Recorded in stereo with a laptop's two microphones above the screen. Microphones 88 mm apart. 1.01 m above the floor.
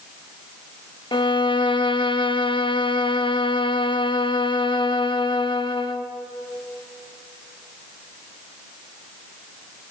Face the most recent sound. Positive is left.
turn(degrees=65)  # may be behind; listen again after turning